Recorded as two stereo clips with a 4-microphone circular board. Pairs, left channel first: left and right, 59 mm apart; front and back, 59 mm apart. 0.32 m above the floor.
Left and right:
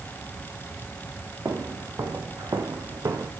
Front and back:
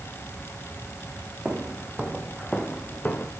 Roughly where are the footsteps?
Behind right.